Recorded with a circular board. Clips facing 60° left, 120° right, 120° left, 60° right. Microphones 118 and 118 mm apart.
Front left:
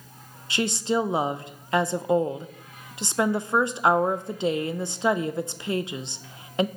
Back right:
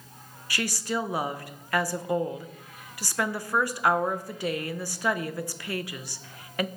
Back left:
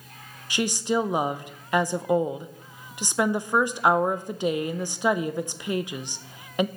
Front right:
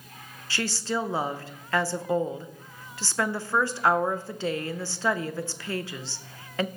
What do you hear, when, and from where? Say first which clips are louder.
0.5 s a woman speaking: front left 5 dB, back left 5 dB; 75° left, 0.5 m